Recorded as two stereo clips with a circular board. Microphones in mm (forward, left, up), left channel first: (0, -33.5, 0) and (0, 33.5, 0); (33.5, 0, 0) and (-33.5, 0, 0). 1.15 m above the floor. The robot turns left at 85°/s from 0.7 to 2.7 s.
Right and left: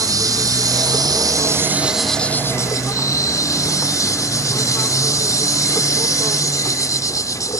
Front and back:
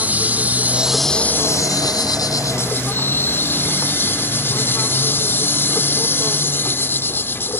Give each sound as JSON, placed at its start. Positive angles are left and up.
{"t": 0.0, "sound": "an insect", "azimuth_deg": 115}